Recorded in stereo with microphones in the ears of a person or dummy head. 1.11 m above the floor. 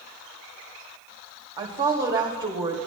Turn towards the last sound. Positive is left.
turn(degrees=-20)  # may be behind; listen again after turning